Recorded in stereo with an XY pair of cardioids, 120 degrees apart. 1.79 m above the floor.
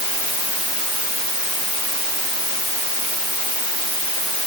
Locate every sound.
Only background noise.